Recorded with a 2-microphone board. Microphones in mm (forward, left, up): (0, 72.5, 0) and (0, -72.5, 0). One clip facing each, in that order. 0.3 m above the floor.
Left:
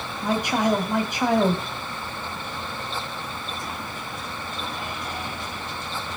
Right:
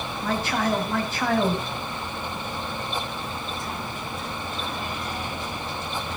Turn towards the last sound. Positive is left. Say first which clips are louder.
# left 3 dB
turn(degrees=15)  # may be behind; listen again after turning